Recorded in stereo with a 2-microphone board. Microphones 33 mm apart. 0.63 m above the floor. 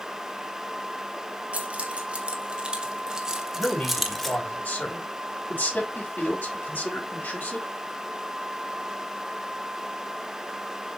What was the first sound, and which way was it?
Keys jangling, 40° right (ahead or behind).